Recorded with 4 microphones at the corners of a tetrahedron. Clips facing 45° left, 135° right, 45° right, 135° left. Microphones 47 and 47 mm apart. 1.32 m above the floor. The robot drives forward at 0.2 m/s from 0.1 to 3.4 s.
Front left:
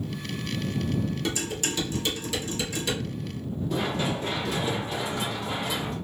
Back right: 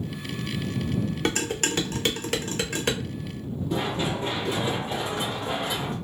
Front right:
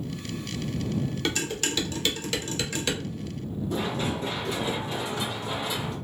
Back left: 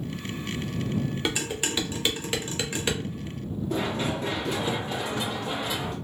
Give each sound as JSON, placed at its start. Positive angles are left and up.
{"t": 1.2, "sound": "dishes clattering", "azimuth_deg": -155, "distance_m": 0.6}
{"t": 3.7, "sound": "running footsteps", "azimuth_deg": 145, "distance_m": 2.0}